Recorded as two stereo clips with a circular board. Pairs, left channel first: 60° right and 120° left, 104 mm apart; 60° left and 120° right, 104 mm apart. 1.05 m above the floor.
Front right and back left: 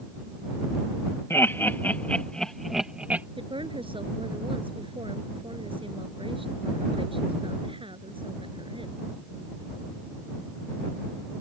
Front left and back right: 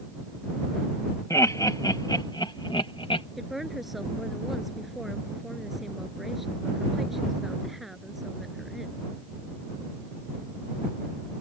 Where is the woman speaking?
150° left.